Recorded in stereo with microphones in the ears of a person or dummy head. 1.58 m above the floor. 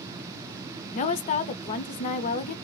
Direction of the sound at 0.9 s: 45° left (ahead or behind).